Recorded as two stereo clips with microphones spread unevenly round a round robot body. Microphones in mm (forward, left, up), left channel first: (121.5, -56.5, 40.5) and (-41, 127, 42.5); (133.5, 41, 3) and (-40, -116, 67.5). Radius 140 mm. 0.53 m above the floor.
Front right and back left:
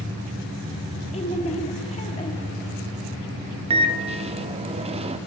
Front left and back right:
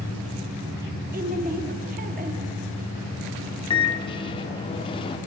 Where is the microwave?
75° left, 0.8 m.